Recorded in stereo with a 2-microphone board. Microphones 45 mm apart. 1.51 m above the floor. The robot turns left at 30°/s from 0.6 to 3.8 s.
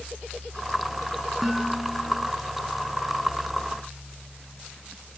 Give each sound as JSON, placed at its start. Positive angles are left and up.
{"t": 1.4, "sound": "dishes clattering", "side_deg": 0}